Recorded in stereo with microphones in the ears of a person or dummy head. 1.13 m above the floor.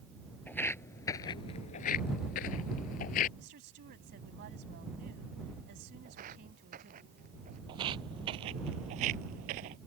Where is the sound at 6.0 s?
50° right (ahead or behind); by 7.6 s 40° right (ahead or behind).